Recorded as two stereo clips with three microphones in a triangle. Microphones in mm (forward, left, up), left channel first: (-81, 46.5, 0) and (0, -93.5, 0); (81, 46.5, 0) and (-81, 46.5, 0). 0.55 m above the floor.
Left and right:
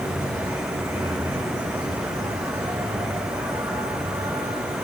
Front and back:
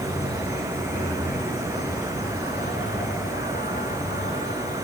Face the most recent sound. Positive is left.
turn(degrees=10)